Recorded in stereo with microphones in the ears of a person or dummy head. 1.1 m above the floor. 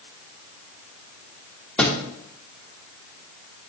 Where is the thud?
5° left (ahead or behind), 0.8 m.